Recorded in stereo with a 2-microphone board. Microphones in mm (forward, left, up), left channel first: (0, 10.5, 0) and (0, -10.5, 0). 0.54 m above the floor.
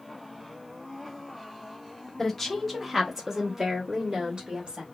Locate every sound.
2.2 s a woman speaking: 20° left (ahead or behind), 1.1 m; by 4.8 s 50° right (ahead or behind), 1.3 m